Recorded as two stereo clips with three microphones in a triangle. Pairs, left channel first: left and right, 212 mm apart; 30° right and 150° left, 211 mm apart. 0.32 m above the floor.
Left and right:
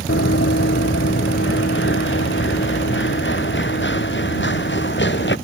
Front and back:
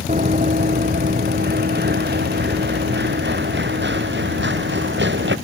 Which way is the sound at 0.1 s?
100° left.